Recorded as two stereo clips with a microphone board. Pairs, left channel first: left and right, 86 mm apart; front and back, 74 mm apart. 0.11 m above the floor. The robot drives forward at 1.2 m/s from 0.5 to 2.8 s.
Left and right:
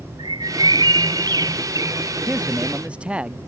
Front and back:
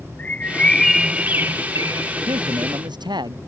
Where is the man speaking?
165° right.